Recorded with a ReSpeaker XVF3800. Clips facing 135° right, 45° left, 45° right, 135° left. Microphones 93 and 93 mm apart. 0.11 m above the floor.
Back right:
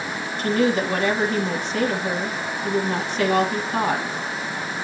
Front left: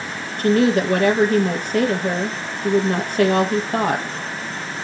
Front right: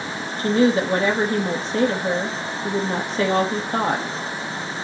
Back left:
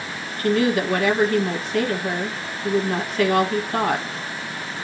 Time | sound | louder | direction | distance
0.4 | a woman speaking | front left 4 dB, front right 2 dB | 15° left | 2 m